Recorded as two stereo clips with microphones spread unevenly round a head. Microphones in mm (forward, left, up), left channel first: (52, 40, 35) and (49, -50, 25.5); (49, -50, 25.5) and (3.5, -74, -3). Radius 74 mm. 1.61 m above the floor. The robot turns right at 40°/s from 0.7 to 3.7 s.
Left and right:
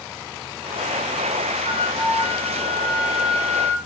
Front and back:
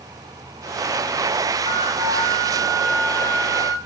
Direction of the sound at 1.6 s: 155° left.